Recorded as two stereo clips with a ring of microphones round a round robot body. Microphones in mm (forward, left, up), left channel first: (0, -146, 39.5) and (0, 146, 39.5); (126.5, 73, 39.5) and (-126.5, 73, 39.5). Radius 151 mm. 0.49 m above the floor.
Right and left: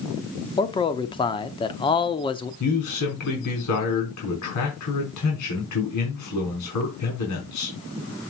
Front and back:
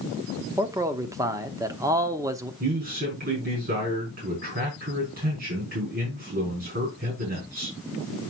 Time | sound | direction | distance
0.6 | a man speaking | 130° right | 0.8 m
2.6 | a man speaking | 120° right | 4.5 m